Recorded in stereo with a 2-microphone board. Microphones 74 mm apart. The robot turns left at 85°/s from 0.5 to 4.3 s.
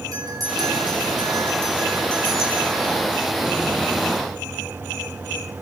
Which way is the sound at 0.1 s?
55° right.